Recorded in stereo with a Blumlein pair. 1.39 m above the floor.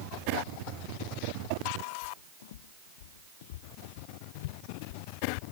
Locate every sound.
2.0 s footsteps: 55° left; by 5.4 s 50° left